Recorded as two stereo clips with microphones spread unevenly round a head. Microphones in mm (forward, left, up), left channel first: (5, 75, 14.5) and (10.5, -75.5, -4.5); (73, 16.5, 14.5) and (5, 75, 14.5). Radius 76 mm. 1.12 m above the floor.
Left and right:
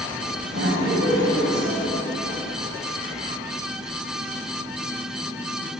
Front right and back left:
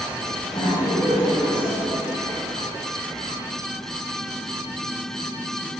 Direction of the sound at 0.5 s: 105° right.